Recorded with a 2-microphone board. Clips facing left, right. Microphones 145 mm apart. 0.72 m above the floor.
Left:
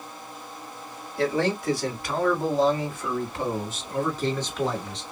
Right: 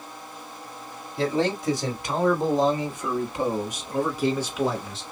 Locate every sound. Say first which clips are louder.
1.2 s a man speaking: even; 20° right (ahead or behind), 1.9 m; by 5.0 s 5° right (ahead or behind), 1.1 m